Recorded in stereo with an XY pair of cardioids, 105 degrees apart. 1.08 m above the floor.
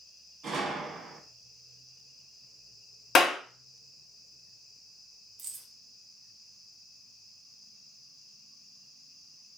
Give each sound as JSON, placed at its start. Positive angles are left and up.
{"t": 0.4, "sound": "a gunshot", "azimuth_deg": -65, "distance_m": 1.0}
{"t": 3.1, "sound": "a clap", "azimuth_deg": 55, "distance_m": 0.9}
{"t": 5.4, "sound": "keys jangling", "azimuth_deg": -60, "distance_m": 0.9}